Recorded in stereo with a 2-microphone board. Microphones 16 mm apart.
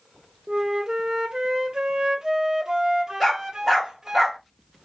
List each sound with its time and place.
0.5 s a flute: 45° right (ahead or behind), 0.5 m
3.2 s a dog barking: 5° left (ahead or behind), 1.3 m